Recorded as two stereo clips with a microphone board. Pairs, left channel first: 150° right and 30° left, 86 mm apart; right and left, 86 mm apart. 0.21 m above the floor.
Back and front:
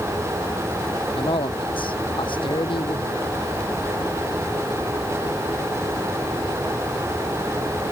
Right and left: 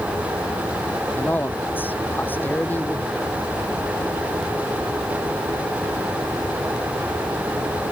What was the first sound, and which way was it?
A man speaking, 160° right.